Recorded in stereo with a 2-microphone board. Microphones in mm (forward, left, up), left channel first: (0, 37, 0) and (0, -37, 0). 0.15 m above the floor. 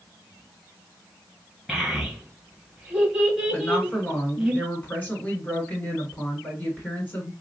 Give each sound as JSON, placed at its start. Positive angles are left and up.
{"t": 1.7, "sound": "a child speaking", "side_deg": -5, "distance_m": 1.8}
{"t": 3.5, "sound": "a woman speaking", "side_deg": 25, "distance_m": 1.5}